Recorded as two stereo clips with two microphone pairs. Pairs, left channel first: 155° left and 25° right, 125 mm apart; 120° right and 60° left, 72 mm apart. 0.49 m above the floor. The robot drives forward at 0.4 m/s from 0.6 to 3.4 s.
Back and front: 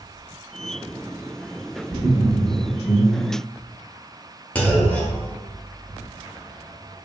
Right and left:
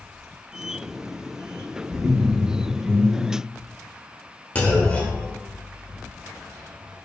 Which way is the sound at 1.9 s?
80° left.